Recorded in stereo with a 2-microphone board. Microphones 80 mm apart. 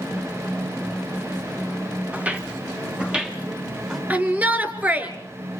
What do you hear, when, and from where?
2.1 s footsteps: 15° right (ahead or behind), 2.5 m; by 4.0 s 5° right (ahead or behind), 3.5 m
4.1 s a shout: 20° right (ahead or behind), 2.5 m